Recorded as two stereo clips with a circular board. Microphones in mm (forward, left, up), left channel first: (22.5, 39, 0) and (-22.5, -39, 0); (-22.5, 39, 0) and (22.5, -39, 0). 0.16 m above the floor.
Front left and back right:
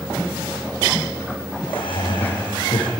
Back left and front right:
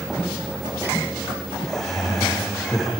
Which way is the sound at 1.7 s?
35° left.